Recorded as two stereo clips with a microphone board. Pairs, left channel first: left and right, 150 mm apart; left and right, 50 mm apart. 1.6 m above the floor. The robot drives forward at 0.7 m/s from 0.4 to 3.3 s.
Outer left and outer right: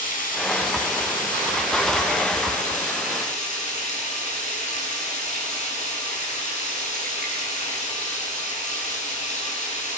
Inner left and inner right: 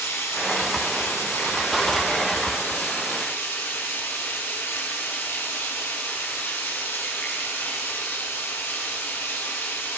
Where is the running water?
65° left (ahead or behind), 6.5 m; by 10.0 s 55° left (ahead or behind), 7.5 m.